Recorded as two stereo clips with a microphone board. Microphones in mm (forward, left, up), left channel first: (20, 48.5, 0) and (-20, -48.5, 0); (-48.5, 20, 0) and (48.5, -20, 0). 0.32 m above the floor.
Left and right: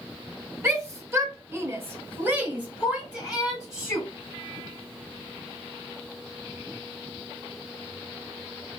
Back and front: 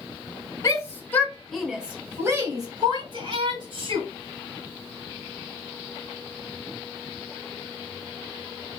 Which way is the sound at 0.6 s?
165° right.